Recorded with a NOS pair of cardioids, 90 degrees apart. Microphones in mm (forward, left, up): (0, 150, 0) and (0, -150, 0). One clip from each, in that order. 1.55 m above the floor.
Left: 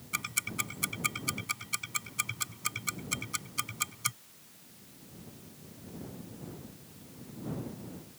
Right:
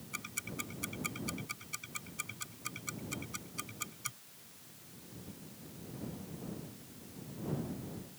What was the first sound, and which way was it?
Ticking, 60° left.